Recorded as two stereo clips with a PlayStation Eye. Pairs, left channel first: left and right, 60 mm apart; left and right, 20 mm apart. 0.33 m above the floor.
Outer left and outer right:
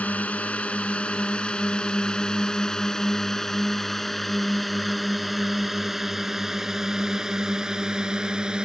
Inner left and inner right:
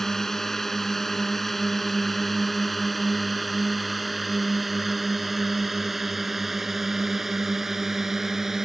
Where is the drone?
25° left (ahead or behind); by 8.7 s 15° right (ahead or behind).